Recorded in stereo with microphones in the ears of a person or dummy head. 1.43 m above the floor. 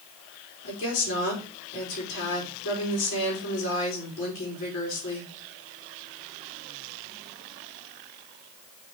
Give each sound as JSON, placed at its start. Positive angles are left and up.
{"t": 0.6, "sound": "a woman speaking", "side_deg": 65, "distance_m": 4.0}